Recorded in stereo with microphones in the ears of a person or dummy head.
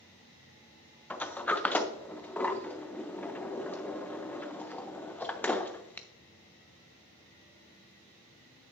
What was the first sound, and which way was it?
A sliding door, 5° left (ahead or behind).